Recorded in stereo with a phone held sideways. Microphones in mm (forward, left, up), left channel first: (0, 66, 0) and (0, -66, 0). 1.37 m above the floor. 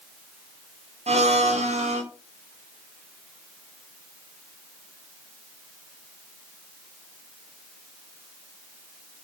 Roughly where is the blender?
Right.